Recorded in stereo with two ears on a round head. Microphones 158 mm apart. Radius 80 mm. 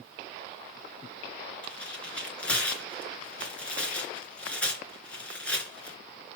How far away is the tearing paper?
About 3 m.